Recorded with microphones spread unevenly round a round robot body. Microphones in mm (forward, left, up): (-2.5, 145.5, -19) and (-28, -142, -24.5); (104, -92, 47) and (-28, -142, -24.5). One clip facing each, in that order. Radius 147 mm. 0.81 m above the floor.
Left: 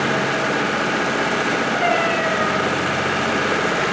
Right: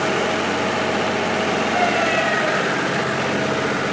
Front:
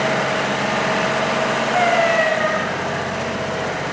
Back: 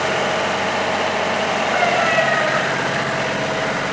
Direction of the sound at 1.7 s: 25° right.